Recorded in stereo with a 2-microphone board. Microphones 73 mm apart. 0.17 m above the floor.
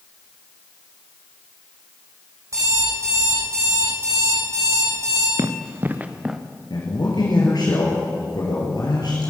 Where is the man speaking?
65° left (ahead or behind), 3.5 m.